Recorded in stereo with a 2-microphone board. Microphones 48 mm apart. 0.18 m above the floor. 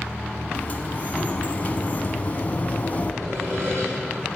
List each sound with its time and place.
0.5 s a sliding door: 35° left (ahead or behind), 0.8 m
3.2 s sawing: 65° right (ahead or behind), 4.5 m